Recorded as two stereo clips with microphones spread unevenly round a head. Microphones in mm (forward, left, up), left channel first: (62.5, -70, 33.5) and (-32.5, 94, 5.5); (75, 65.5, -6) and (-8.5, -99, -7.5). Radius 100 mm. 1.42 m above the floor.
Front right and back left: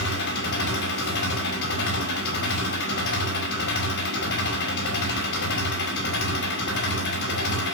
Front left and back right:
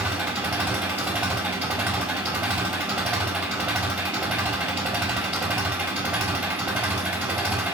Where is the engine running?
35° right, 5.5 m.